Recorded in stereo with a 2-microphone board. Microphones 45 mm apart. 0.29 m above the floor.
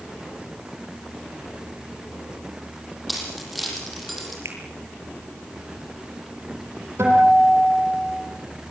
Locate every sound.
3.1 s keys jangling: centre (ahead or behind), 7.5 m
4.5 s a finger snap: 70° right (ahead or behind), 6.5 m
7.0 s a guitar: 70° right (ahead or behind), 9 m